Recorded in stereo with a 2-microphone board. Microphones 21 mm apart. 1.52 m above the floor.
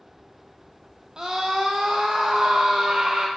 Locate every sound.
1.2 s a scream: 35° right (ahead or behind), 0.5 m